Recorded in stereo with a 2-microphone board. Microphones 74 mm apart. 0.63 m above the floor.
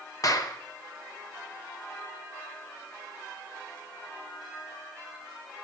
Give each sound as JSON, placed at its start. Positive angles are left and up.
{"t": 0.2, "sound": "a clap", "side_deg": 50, "distance_m": 0.9}